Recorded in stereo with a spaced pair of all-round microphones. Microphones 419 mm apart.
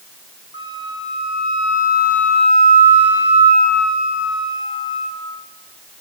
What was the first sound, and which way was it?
A flute, 65° right (ahead or behind).